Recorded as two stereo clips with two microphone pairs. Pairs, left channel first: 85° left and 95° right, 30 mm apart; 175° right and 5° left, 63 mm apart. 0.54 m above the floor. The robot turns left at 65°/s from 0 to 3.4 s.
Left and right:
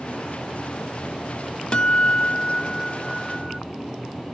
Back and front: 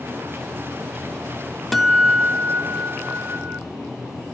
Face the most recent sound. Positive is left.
turn(degrees=-15)